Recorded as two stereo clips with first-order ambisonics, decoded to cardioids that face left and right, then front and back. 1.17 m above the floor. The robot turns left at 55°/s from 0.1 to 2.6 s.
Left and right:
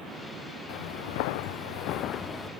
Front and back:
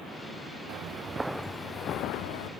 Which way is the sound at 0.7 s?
125° left.